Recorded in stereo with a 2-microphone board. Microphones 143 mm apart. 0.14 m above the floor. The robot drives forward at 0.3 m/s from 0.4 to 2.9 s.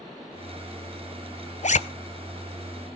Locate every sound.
1.6 s a zipper: 55° left (ahead or behind), 0.6 m